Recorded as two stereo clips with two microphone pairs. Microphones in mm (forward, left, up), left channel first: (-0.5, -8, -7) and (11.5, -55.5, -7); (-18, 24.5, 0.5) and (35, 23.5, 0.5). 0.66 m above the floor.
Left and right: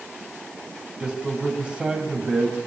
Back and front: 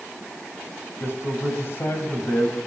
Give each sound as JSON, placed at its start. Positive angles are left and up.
{"t": 1.0, "sound": "a man speaking", "azimuth_deg": -145, "distance_m": 4.5}